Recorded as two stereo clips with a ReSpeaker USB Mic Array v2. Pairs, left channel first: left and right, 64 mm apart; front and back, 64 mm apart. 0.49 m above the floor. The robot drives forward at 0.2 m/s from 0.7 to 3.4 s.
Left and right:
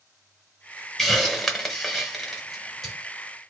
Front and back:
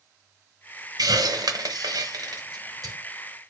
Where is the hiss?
175° left, 0.8 m.